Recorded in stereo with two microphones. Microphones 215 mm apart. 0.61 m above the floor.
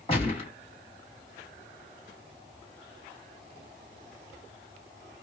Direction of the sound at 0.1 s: 25° left (ahead or behind).